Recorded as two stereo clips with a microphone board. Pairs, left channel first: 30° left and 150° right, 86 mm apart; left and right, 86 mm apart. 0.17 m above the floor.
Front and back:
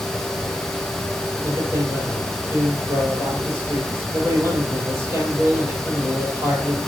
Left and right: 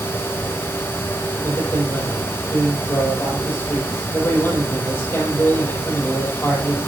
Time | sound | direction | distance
1.4 | a man speaking | 155° left | 6 m